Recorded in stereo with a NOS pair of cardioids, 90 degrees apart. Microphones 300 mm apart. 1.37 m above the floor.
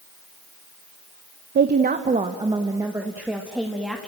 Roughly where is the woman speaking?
Ahead right.